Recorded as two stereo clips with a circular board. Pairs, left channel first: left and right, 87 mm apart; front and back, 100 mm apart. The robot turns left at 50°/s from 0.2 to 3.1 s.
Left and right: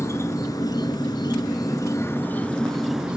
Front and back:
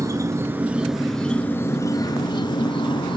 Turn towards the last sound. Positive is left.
turn(degrees=-10)